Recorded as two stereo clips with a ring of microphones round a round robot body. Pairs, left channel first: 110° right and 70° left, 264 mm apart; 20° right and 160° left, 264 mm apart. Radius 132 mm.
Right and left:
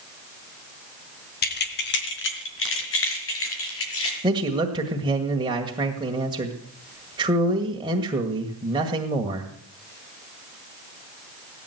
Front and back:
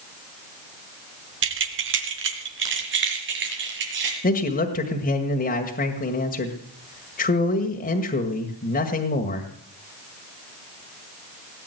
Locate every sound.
1.4 s keys jangling: 165° right, 1.9 m; by 4.1 s 155° right, 6 m
4.2 s a man speaking: 5° left, 1.8 m